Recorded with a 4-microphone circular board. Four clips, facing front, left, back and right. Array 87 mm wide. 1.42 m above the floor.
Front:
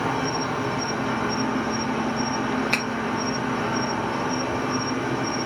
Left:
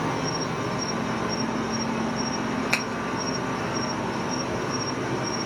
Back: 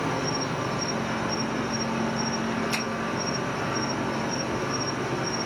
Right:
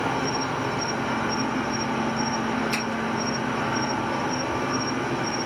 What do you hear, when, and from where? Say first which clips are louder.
0.0 s an insect: right 2 dB, front 3 dB; 45° right, 0.9 m
2.7 s a finger snap: even, front 3 dB; 55° left, 0.7 m